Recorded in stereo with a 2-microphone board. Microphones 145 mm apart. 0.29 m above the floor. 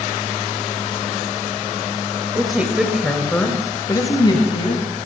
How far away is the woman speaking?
About 1.2 m.